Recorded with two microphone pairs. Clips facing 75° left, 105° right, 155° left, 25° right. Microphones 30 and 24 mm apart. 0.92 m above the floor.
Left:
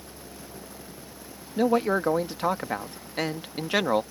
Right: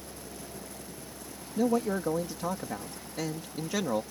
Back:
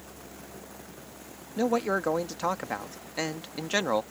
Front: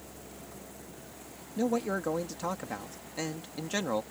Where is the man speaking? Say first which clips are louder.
Left 5 dB, back 4 dB; 90° left.